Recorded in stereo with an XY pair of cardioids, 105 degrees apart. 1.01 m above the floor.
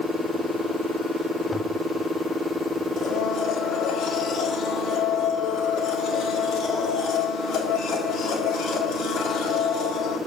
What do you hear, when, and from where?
1.5 s a toilet flushing: 10° left, 0.6 m
3.0 s a blender: 70° left, 2 m